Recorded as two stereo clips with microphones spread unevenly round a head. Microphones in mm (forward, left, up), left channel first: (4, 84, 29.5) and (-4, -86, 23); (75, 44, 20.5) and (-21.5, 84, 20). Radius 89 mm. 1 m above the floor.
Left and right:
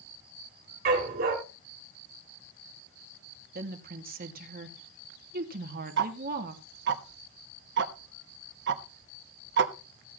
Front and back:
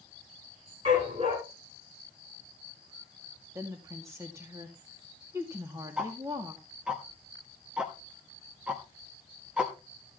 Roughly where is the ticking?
Behind right.